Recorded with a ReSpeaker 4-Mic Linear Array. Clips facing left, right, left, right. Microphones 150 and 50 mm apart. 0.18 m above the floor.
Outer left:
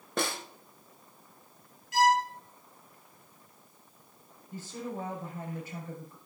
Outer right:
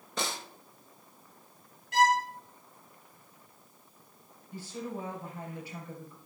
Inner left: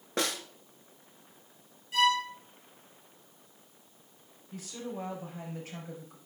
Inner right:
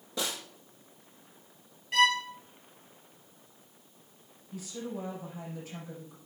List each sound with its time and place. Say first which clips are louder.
0.2 s a snare drum: outer left 4 dB, inner left 3 dB; 60° left (ahead or behind), 1.6 m
1.9 s a violin: outer left 1 dB, inner right 1 dB; 55° right (ahead or behind), 1.8 m
4.5 s a woman speaking: even, inner right 1 dB; 45° left (ahead or behind), 4 m